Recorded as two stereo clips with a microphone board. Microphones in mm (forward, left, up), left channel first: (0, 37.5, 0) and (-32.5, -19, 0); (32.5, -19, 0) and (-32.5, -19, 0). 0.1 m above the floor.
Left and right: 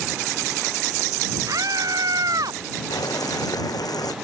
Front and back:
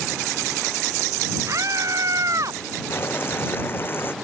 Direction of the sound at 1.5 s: 145° right.